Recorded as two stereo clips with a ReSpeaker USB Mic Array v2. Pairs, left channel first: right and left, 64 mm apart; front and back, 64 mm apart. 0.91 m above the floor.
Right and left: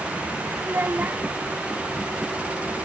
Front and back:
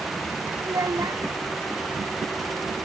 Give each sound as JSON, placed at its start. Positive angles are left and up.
{"t": 0.6, "sound": "a child speaking", "azimuth_deg": 150}